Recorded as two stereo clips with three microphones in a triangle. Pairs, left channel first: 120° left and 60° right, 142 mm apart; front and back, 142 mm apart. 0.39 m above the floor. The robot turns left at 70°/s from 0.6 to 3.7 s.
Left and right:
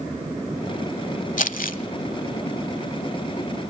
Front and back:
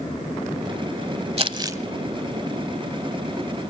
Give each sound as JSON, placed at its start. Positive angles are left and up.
{"t": 1.4, "sound": "crumpling", "azimuth_deg": 140, "distance_m": 0.9}